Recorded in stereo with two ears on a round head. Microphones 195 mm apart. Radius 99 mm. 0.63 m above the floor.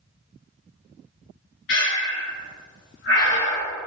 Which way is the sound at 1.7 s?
55° left (ahead or behind).